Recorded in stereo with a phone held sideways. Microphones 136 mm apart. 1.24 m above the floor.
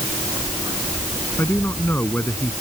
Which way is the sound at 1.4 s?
15° left (ahead or behind).